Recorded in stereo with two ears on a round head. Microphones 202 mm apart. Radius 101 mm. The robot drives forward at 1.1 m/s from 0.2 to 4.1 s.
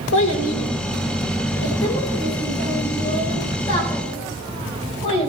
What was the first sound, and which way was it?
A child speaking, 60° left (ahead or behind).